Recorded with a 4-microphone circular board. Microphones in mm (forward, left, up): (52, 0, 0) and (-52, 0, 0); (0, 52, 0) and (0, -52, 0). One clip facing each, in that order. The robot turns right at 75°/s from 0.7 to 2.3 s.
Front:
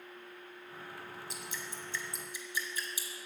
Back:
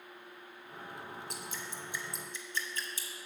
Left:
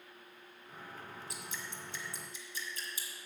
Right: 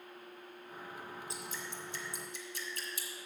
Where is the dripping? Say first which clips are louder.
Back 1 dB, right 2 dB; 150° right, 1.1 m; by 3.1 s 75° right, 1.1 m.